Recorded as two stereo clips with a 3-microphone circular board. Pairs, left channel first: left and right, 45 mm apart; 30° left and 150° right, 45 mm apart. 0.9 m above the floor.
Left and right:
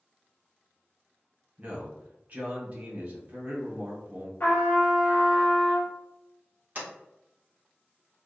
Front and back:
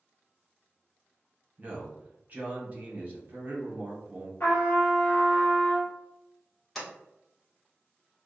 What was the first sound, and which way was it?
A man speaking, 120° right.